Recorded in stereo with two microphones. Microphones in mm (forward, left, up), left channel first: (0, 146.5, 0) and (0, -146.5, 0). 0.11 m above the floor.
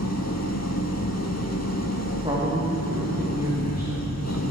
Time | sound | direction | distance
0.0 | an engine running | 60° left (ahead or behind) | 1.5 m
2.2 | a man speaking | 20° right (ahead or behind) | 4 m